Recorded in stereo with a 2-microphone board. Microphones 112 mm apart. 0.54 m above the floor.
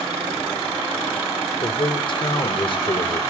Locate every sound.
1.6 s a man speaking: 50° left (ahead or behind), 1.2 m